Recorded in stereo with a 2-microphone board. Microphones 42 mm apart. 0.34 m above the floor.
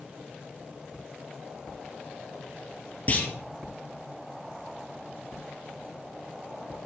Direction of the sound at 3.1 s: 35° left (ahead or behind).